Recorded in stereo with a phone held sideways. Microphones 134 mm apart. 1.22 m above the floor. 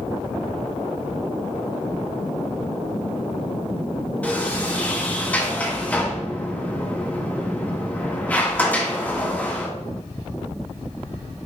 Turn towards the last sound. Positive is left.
turn(degrees=10)  # may be behind; listen again after turning